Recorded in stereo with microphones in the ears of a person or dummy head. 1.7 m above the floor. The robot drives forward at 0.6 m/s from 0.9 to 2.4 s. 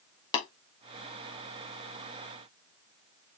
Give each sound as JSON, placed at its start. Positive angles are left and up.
{"t": 0.3, "sound": "tapping", "side_deg": 25, "distance_m": 2.0}